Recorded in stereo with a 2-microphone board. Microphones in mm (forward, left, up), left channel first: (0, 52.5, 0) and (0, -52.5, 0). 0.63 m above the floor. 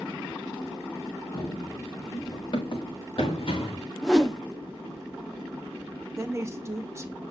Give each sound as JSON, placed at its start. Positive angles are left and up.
{"t": 1.3, "sound": "running footsteps", "side_deg": 30, "distance_m": 2.0}
{"t": 4.0, "sound": "a whoosh", "side_deg": 0, "distance_m": 1.0}
{"t": 6.2, "sound": "a woman speaking", "side_deg": -25, "distance_m": 0.9}